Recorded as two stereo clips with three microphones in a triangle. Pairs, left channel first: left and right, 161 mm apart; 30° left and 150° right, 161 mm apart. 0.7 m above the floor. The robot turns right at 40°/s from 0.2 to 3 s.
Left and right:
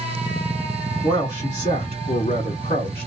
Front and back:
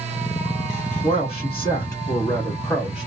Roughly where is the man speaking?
Ahead left.